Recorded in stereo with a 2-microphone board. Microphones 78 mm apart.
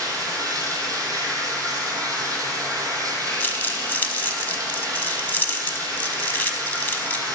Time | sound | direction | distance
0.0 | running water | 50° right (ahead or behind) | 1.9 m
3.4 | crumpling | 25° left (ahead or behind) | 0.7 m